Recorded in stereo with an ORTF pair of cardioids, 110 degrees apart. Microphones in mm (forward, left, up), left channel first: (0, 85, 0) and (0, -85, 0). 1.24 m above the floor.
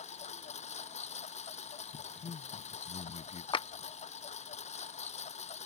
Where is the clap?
30° left.